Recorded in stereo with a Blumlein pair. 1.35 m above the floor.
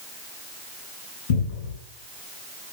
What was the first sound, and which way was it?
A cupboard door, 55° left.